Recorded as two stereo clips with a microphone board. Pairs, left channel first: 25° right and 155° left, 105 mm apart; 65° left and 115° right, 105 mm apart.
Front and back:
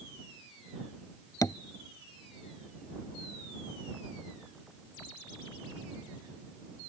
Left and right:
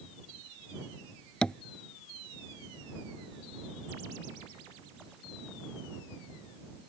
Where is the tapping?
5° right.